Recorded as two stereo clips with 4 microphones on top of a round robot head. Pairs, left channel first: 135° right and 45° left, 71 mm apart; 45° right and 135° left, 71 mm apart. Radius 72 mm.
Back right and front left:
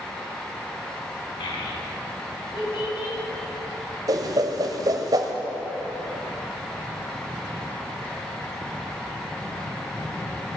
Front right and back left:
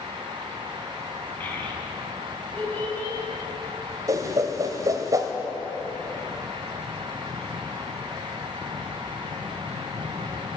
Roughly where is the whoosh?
Left.